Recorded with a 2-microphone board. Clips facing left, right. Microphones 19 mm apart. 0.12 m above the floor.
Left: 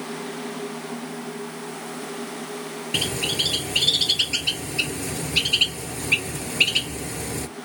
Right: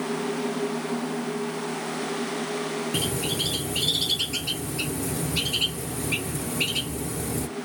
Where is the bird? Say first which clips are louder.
Left 6 dB; 40° left (ahead or behind), 0.6 m.